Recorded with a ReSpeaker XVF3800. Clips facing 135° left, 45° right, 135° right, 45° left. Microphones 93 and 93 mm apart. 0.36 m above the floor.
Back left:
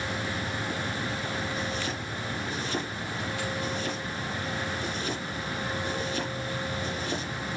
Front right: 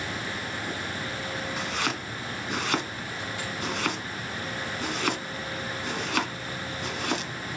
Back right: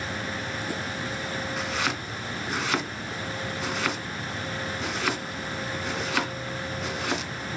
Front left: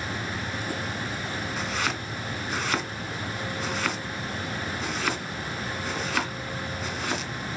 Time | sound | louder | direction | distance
1.6 | chopping | front right 2 dB, even | 45° right | 1.8 m